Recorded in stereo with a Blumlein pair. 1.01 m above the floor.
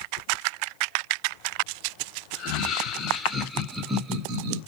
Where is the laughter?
30° left, 1.3 m; by 4.6 s 50° right, 0.8 m.